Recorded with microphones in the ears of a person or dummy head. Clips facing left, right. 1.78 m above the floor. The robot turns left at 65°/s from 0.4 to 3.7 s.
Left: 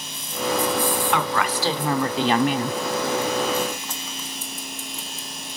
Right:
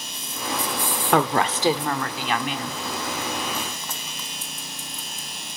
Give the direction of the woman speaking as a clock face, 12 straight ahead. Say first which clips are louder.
Right 3 dB; 4 o'clock.